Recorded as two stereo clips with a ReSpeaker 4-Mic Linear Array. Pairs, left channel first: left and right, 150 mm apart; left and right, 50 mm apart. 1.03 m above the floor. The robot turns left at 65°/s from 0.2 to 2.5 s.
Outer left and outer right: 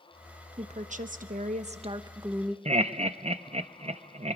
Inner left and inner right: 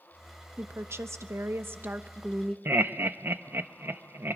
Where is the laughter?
45° right (ahead or behind), 0.7 m.